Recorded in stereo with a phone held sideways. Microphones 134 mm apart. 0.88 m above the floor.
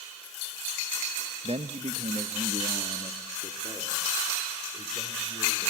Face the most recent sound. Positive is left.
turn(degrees=-45)  # may be behind; listen again after turning